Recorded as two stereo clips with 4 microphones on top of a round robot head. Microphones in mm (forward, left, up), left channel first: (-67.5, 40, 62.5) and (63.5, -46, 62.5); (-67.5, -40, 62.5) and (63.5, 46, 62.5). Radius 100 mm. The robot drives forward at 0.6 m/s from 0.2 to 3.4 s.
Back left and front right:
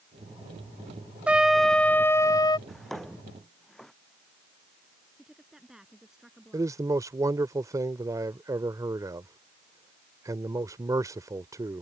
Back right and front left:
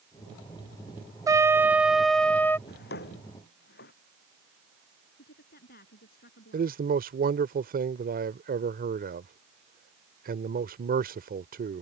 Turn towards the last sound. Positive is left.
turn(degrees=35)